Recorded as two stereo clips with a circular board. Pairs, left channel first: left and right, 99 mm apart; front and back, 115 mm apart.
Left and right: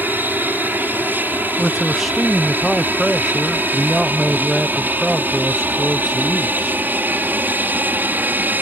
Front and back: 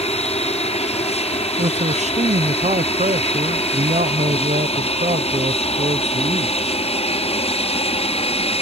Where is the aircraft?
20° right.